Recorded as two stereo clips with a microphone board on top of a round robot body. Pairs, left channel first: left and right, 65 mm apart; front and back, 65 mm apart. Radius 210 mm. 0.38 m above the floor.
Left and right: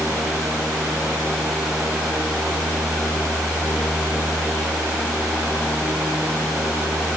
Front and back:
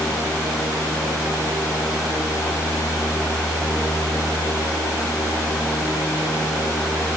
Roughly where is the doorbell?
No doorbell in this recording.